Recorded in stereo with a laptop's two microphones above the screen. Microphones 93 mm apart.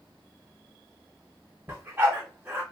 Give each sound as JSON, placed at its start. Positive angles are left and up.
{"t": 1.7, "sound": "a dog barking", "side_deg": -25, "distance_m": 1.2}